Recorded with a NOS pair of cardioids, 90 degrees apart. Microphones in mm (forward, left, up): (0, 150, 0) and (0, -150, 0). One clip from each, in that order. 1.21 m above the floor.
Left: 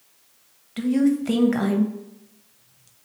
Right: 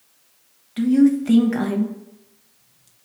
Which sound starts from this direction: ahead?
A woman speaking, at 0.8 s.